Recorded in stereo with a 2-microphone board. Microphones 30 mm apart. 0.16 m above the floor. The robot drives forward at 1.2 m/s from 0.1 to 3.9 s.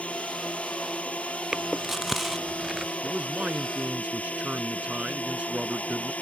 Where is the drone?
50° left (ahead or behind); by 6.2 s 55° left (ahead or behind).